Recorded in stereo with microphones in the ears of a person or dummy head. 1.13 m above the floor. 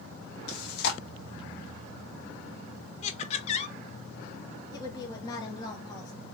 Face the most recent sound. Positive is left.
turn(degrees=20)  # may be behind; listen again after turning